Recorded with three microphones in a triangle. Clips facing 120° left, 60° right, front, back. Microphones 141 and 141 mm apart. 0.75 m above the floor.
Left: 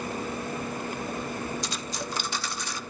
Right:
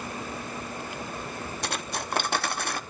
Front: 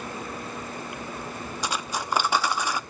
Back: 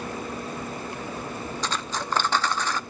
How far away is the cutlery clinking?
About 0.5 m.